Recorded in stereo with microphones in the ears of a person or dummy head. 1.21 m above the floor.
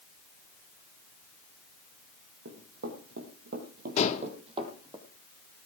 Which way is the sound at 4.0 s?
40° left (ahead or behind).